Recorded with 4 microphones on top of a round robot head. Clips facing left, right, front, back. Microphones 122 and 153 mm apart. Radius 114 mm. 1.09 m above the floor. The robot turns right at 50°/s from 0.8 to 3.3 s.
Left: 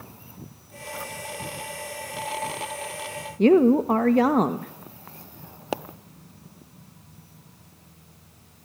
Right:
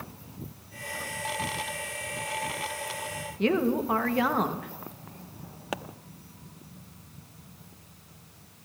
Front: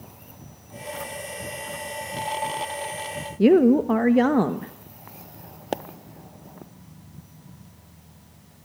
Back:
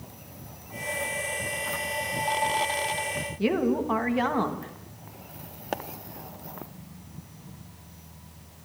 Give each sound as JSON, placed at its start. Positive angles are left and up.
{"t": 3.4, "sound": "a woman speaking", "azimuth_deg": 40, "distance_m": 1.2}
{"t": 5.7, "sound": "a pop", "azimuth_deg": 45, "distance_m": 0.6}